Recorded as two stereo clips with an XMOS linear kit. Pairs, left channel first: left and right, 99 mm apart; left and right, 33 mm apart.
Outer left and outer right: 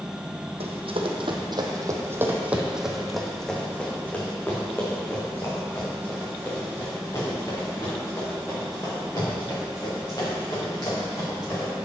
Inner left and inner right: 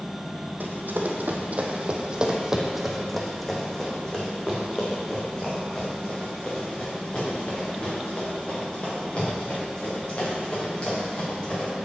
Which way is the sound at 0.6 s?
70° right (ahead or behind).